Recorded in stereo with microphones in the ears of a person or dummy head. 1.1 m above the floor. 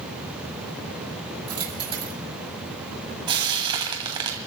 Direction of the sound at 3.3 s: 25° right (ahead or behind).